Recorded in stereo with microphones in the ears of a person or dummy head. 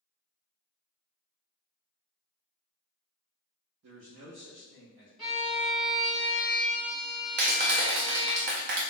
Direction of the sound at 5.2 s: 5° left (ahead or behind).